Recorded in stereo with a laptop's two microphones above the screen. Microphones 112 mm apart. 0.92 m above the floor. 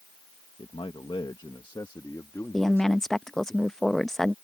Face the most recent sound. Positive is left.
turn(degrees=5)  # may be behind; listen again after turning